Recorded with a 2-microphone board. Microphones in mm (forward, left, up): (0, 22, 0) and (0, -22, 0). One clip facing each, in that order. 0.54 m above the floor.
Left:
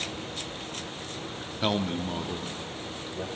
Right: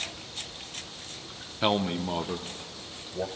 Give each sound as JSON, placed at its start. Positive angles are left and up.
{"t": 1.6, "sound": "a man speaking", "side_deg": -15, "distance_m": 0.7}